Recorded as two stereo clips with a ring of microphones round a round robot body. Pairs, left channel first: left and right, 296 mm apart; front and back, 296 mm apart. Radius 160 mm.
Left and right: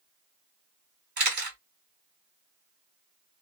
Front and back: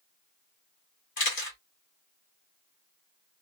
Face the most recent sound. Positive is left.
turn(degrees=-50)